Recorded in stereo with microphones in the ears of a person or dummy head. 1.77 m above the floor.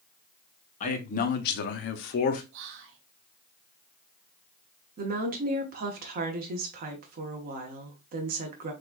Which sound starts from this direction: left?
A man speaking, at 0.8 s.